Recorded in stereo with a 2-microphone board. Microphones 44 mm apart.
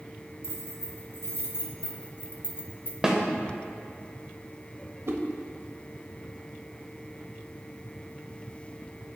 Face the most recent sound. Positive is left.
turn(degrees=-65)  # may be behind; listen again after turning